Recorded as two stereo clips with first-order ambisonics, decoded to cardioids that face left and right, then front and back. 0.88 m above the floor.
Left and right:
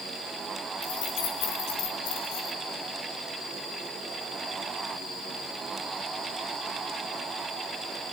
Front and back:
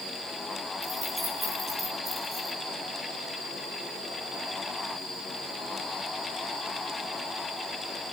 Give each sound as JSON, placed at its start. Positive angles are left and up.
{"t": 0.8, "sound": "keys jangling", "azimuth_deg": 100, "distance_m": 6.0}